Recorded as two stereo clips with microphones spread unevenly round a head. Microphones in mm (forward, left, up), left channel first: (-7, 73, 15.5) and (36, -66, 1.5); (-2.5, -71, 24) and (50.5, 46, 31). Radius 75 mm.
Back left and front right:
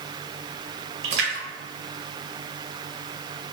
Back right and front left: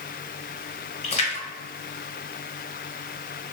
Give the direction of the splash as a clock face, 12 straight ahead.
3 o'clock.